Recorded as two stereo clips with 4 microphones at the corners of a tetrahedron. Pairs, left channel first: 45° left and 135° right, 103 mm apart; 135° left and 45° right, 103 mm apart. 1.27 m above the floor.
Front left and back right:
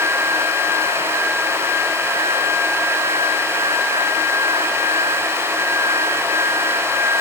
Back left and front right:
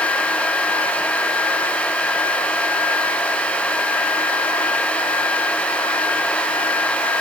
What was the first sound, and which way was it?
Only background noise.